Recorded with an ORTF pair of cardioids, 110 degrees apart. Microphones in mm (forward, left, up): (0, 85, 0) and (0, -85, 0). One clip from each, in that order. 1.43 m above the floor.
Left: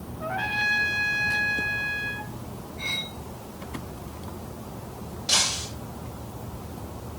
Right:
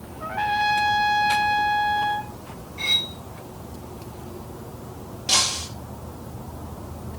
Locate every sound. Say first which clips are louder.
0.2 s a trumpet: right 3 dB; 20° right, 2 m
2.8 s cutlery clinking: right 8 dB; 55° right, 4 m
5.3 s breaking glass: right 2 dB; 25° right, 6.5 m